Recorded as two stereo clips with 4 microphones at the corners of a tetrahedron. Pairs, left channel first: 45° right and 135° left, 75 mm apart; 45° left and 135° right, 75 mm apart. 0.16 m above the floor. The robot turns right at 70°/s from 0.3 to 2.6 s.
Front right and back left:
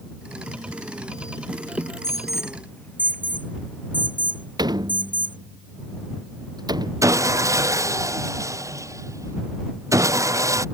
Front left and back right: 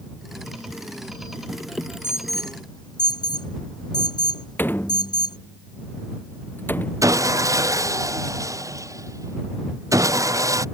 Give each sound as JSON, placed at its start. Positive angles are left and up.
{"t": 2.0, "sound": "an alarm", "azimuth_deg": -15}
{"t": 4.6, "sound": "a door slam", "azimuth_deg": 110}
{"t": 7.0, "sound": "sawing", "azimuth_deg": 180}